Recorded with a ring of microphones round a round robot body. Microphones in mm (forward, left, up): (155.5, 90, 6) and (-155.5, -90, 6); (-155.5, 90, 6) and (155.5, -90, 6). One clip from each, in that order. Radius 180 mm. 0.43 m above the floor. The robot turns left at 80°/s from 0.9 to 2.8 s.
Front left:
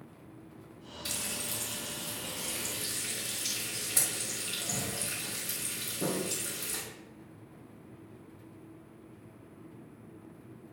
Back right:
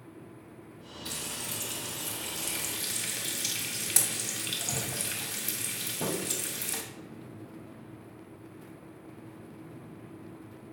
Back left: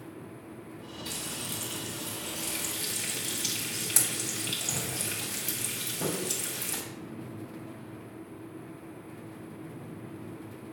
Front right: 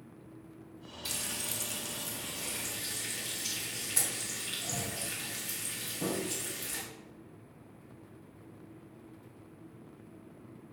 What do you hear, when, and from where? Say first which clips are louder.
1.1 s frying: front left 1 dB, even; 20° right, 2.5 m; by 6.8 s 160° right, 2.5 m